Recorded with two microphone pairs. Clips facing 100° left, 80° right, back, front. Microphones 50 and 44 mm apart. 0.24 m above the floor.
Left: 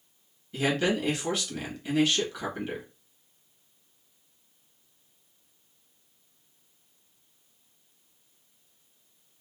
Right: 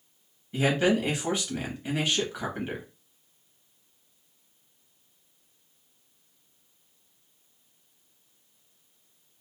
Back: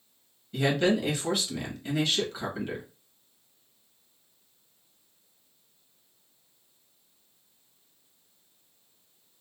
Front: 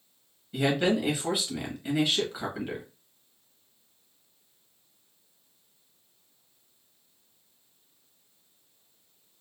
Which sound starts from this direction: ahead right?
A man speaking, at 0.5 s.